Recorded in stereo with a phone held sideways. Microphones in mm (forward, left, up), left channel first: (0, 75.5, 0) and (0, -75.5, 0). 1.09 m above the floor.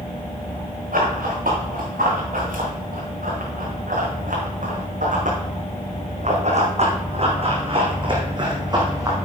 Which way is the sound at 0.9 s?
75° right (ahead or behind).